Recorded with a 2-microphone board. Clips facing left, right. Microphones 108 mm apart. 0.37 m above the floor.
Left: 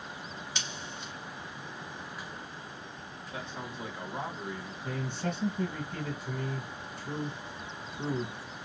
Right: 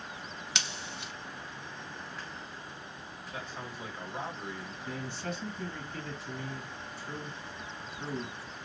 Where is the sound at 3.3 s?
15° left (ahead or behind), 1.8 m.